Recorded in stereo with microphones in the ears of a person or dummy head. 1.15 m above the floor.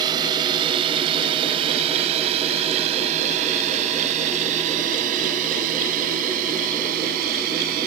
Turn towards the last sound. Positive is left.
turn(degrees=-45)  # may be behind; listen again after turning